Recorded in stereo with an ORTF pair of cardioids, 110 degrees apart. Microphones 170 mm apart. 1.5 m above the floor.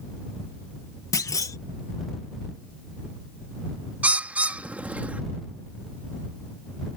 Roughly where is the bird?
Ahead.